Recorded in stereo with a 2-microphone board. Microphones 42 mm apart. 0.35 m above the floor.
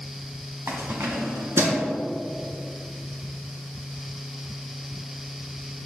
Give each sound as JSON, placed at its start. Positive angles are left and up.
{"t": 0.7, "sound": "keys jangling", "side_deg": -70, "distance_m": 1.4}